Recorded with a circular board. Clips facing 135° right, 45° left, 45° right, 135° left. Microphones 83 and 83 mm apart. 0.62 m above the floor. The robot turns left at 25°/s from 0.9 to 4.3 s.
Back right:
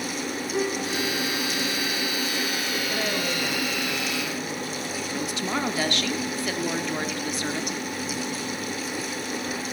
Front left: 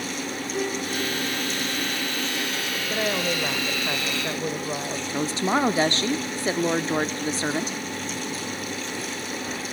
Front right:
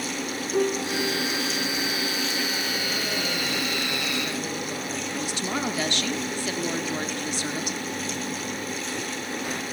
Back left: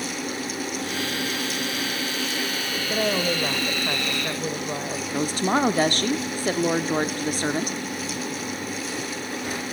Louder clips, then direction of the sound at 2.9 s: Front left 5 dB, back left 5 dB; 120° left.